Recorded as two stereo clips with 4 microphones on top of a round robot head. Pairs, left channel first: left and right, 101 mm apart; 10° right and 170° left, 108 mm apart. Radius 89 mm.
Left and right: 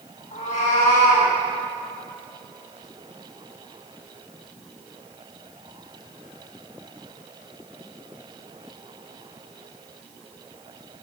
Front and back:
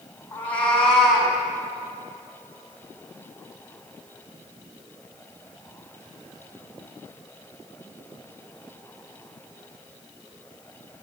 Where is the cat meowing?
65° left, 3 m; by 1.3 s 85° left, 3.5 m.